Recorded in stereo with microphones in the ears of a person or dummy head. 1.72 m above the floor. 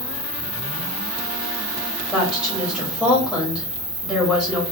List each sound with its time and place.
0.0 s an insect: 15° left (ahead or behind), 2.0 m
2.1 s a woman speaking: 5° left (ahead or behind), 1.2 m